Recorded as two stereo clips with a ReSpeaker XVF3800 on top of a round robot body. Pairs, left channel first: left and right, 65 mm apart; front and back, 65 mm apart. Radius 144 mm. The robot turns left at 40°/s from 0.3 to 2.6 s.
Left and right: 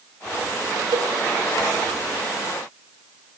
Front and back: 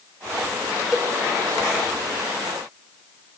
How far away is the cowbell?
About 2.5 m.